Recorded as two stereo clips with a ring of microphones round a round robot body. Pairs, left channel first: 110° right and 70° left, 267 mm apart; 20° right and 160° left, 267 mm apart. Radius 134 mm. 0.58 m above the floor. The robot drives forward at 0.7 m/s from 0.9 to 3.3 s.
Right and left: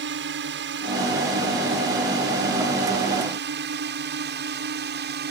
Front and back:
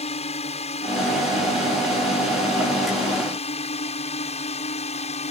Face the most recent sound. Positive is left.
turn(degrees=35)